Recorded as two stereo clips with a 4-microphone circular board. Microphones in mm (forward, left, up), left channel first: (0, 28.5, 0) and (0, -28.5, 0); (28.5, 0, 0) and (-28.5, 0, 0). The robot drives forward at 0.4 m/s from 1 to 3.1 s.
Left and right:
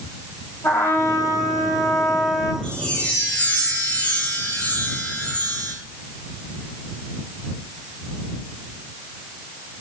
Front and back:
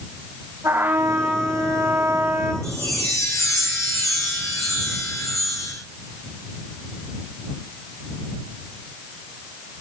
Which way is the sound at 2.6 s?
20° left.